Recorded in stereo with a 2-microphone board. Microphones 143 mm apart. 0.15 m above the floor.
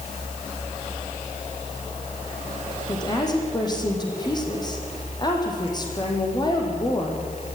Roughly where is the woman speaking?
Left.